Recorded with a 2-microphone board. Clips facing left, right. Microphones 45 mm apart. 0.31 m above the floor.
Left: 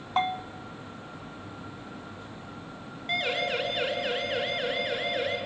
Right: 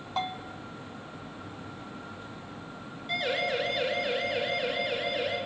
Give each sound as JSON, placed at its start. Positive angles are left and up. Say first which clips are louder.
{"t": 0.2, "sound": "a bell", "louder": "left 5 dB", "side_deg": 40, "distance_m": 1.1}
{"t": 3.1, "sound": "a siren", "louder": "left 1 dB", "side_deg": 55, "distance_m": 4.5}